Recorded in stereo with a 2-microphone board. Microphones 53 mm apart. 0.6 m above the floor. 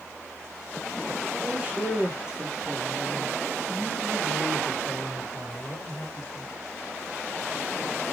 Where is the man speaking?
25° right (ahead or behind), 1.4 m; by 6.5 s 55° left (ahead or behind), 2 m.